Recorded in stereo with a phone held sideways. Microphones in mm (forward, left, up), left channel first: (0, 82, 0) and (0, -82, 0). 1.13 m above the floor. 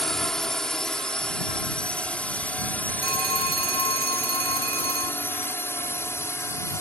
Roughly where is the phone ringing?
Right.